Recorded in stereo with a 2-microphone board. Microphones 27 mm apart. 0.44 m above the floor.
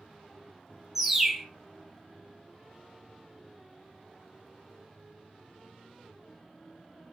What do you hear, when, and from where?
0.9 s a bird: 10° right (ahead or behind), 0.6 m